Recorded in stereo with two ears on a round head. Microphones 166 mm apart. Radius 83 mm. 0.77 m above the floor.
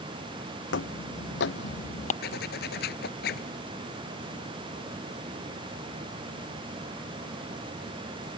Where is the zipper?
55° left (ahead or behind).